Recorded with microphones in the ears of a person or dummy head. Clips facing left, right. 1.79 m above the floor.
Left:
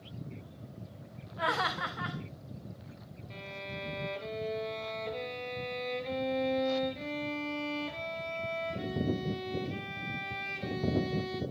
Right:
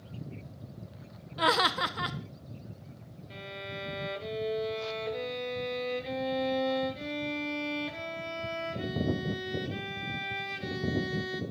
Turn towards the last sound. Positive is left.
turn(degrees=-10)  # may be behind; listen again after turning